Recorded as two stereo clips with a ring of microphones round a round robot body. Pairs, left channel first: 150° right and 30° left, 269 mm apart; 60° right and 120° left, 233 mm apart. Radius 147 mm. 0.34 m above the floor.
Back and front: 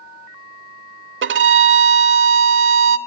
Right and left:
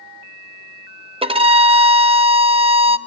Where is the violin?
60° left, 0.8 m.